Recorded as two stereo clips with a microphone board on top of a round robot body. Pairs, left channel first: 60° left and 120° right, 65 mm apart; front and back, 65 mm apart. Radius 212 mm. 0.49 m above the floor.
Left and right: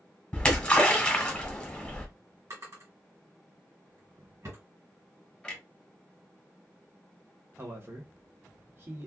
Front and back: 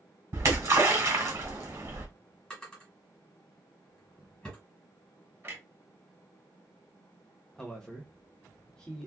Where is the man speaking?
80° right, 1.5 m.